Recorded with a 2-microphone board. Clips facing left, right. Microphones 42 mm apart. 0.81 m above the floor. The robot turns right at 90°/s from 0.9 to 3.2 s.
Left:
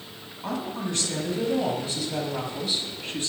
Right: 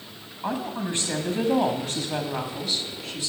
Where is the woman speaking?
165° right, 1.8 m; by 3.3 s 45° left, 1.8 m.